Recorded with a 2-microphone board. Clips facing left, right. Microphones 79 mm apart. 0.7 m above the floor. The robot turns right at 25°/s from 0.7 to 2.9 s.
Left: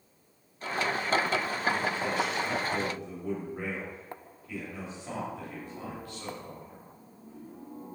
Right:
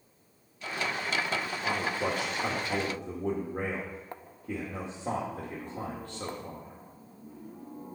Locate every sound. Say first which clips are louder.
1.6 s a man speaking: left 1 dB; 100° right, 2 m; by 6.8 s 70° right, 2 m